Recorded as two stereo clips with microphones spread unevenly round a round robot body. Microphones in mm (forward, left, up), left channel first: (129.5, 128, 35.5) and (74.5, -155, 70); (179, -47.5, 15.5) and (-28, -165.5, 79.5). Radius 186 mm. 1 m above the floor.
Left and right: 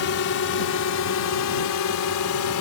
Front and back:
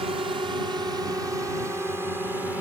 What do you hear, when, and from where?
0.0 s a drone: 130° left; by 2.6 s 120° left